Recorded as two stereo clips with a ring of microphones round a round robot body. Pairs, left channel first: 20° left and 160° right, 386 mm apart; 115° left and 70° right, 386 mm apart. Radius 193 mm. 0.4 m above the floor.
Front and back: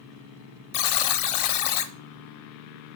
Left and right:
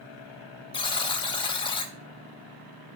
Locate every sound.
0.7 s a buzzer: 35° left, 0.7 m